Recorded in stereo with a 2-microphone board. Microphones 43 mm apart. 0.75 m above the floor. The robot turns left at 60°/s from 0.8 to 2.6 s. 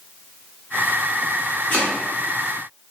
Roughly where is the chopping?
Left.